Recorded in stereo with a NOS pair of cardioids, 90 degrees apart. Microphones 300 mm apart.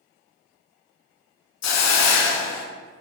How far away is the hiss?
About 0.6 m.